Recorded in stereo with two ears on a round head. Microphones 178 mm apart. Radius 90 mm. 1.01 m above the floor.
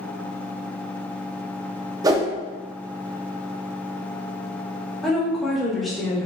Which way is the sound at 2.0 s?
20° right (ahead or behind).